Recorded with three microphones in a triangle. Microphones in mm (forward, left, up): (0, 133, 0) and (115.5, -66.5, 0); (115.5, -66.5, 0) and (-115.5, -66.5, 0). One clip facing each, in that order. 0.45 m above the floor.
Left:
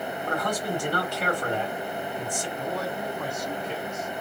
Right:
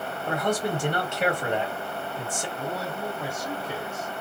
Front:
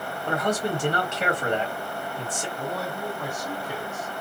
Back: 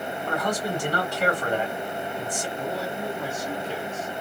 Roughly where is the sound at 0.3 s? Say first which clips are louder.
Right 4 dB, front 3 dB; ahead right.